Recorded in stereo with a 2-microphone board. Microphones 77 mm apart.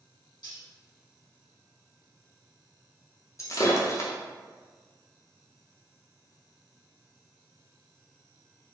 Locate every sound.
0.4 s cutlery clinking: 65° left (ahead or behind), 1.5 m
3.4 s breaking glass: 40° left (ahead or behind), 0.5 m